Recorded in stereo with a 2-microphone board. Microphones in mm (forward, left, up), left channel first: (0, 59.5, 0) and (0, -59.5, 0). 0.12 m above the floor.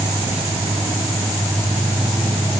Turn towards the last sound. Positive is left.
No sound to turn to.